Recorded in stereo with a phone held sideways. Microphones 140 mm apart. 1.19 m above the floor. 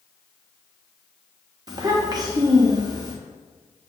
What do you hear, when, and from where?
1.7 s a child speaking: 30° right (ahead or behind), 0.8 m